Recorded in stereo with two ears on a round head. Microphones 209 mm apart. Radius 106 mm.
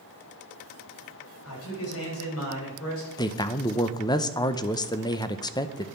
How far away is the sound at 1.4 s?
About 5.5 m.